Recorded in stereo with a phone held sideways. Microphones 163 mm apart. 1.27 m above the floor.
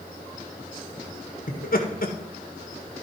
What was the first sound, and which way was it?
Laughter, 70° left (ahead or behind).